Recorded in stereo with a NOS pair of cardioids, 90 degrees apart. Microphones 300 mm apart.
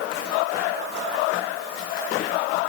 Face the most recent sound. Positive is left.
No sound to turn to.